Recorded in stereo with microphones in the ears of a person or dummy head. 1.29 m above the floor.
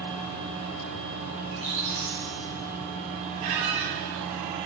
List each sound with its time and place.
1.4 s a squeak: 40° right (ahead or behind), 2 m
3.4 s a squeak: 45° right (ahead or behind), 1.9 m